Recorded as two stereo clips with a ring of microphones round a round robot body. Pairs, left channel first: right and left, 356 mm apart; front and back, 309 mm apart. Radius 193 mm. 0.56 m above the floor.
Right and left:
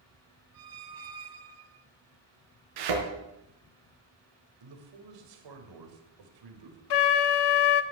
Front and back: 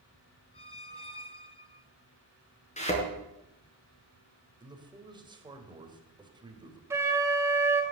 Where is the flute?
100° right, 1.1 m.